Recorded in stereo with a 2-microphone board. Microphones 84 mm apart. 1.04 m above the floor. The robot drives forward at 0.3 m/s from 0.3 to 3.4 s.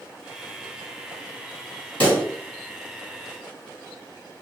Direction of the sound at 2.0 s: 15° left (ahead or behind).